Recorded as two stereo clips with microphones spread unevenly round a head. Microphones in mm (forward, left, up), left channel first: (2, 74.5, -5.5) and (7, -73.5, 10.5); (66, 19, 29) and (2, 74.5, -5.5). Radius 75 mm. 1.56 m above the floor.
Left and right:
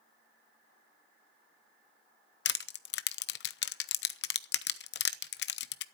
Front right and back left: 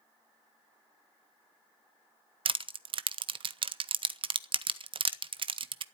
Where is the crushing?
105° left, 0.6 m.